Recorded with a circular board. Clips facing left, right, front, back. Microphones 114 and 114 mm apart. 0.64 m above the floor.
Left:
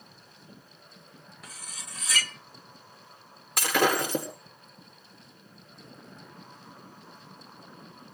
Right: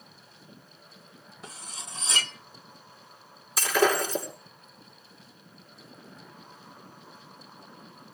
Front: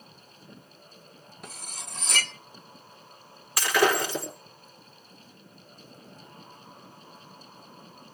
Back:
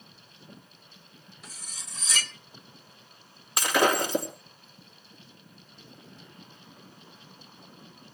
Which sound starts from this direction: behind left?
Breaking glass, at 3.6 s.